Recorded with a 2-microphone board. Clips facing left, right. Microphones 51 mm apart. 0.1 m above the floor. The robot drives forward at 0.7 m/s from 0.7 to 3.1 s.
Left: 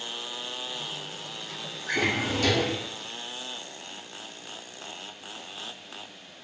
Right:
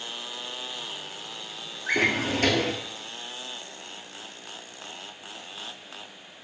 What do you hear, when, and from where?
1.9 s a drawer: 45° right (ahead or behind), 0.7 m; by 2.8 s 40° right (ahead or behind), 0.7 m